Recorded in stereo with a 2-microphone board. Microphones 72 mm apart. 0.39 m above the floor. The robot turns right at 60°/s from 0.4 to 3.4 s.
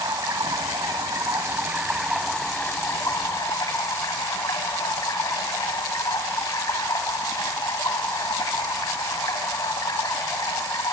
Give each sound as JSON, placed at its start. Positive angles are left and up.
{"t": 0.0, "sound": "running water", "azimuth_deg": -110, "distance_m": 0.7}